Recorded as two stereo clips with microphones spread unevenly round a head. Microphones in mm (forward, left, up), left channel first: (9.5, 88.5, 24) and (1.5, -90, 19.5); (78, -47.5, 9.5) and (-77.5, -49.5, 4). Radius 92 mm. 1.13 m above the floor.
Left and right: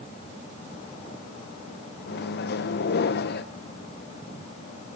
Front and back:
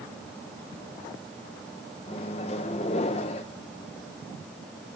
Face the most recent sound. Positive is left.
turn(degrees=60)